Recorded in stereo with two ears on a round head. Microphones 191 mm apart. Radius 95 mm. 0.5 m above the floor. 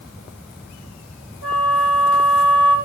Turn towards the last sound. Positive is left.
turn(degrees=-65)  # may be behind; listen again after turning